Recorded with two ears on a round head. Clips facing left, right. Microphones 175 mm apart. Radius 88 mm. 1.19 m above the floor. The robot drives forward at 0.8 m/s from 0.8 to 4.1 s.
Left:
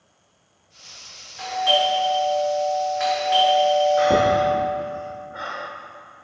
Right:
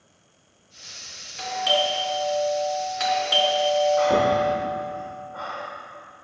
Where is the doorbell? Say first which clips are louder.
Left 3 dB; 35° right (ahead or behind), 4 m; by 4.6 s 65° right (ahead or behind), 2.5 m.